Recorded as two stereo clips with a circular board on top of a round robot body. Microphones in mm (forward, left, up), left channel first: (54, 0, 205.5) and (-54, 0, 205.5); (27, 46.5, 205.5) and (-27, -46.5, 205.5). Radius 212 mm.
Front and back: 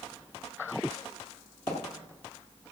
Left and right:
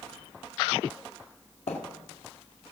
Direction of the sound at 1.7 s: 65° left.